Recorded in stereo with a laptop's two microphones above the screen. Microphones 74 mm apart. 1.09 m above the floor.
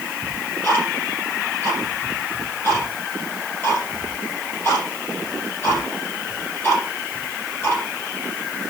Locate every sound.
0.2 s ticking: 35° left (ahead or behind), 7 m